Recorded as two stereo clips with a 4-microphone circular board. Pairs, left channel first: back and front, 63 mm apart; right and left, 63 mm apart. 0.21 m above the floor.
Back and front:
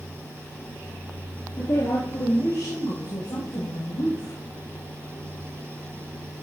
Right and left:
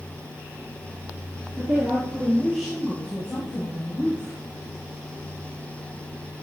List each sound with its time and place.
1.6 s a woman speaking: 155° left, 4 m; by 4.4 s 160° right, 6 m